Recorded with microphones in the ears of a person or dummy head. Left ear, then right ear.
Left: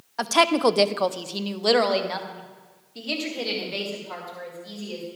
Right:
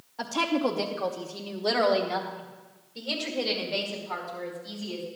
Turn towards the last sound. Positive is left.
turn(degrees=10)  # may be behind; listen again after turning